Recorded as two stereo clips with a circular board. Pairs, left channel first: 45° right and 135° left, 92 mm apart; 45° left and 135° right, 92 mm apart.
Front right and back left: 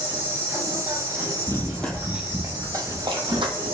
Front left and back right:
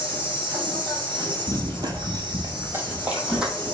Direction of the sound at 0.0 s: 165° right.